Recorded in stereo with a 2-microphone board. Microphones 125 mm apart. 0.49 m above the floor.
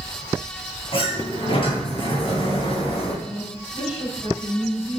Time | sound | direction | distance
0.9 | a sliding door | 45° left (ahead or behind) | 3 m
3.2 | a woman speaking | 50° left (ahead or behind) | 4 m